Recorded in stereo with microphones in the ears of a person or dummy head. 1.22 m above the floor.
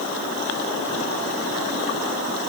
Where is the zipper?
No zipper in this recording.